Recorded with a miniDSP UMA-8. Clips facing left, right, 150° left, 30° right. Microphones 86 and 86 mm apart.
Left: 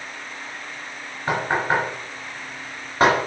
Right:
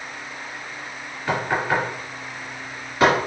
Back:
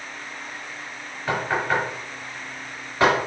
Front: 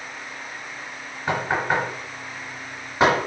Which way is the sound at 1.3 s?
40° left.